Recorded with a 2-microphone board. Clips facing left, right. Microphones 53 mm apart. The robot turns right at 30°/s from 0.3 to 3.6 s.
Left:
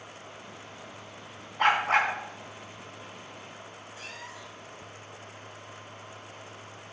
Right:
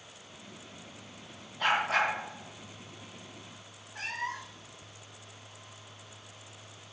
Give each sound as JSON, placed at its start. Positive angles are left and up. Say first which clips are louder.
{"t": 1.6, "sound": "a dog barking", "louder": "left 4 dB", "side_deg": 55, "distance_m": 3.5}
{"t": 4.0, "sound": "a cat meowing", "louder": "right 9 dB", "side_deg": -50, "distance_m": 0.8}